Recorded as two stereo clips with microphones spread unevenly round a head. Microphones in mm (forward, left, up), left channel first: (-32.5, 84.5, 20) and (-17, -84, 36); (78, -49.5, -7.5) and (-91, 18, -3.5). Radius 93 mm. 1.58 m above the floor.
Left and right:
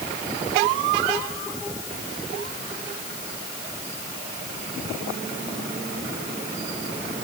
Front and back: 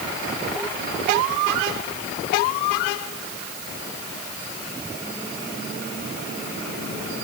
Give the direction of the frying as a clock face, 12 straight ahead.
I don't hear frying.